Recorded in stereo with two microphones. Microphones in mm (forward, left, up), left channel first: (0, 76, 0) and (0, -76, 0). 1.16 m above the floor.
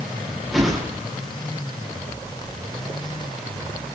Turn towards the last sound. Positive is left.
turn(degrees=0)  # may be behind; listen again after turning